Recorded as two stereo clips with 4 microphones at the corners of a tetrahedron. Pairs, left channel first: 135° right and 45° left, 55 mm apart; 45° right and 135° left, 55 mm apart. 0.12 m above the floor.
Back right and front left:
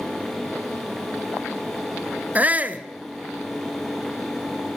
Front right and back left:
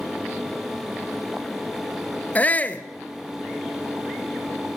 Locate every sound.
2.4 s a shout: straight ahead, 1.9 m